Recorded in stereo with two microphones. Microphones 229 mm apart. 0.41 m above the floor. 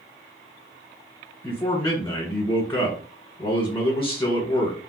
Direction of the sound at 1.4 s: 10° left (ahead or behind).